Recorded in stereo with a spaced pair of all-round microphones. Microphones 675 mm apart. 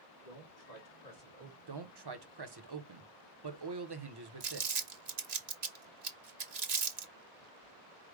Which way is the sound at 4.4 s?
70° right (ahead or behind).